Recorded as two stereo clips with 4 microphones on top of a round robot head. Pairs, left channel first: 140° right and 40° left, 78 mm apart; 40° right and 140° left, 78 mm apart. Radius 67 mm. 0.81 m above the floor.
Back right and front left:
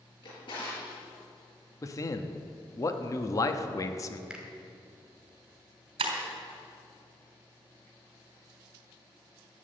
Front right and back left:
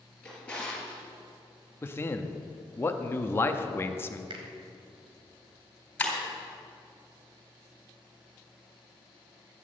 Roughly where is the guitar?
No guitar in this recording.